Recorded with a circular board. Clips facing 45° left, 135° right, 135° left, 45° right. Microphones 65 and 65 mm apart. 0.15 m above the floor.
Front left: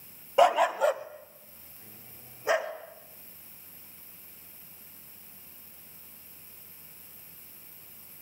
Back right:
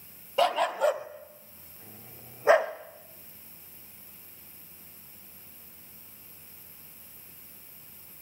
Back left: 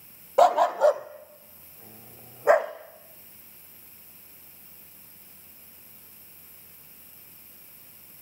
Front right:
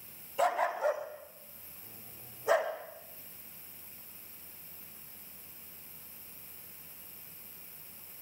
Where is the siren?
No siren in this recording.